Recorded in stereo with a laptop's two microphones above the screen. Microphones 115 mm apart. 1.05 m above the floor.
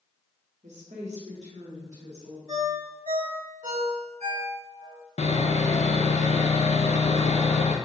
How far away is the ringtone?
About 1.5 m.